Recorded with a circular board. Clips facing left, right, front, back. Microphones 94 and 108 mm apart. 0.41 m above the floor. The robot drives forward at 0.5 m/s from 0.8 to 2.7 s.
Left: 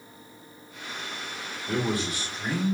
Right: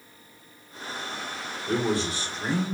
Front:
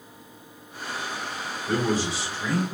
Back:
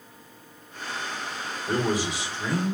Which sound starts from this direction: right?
A man speaking, at 1.7 s.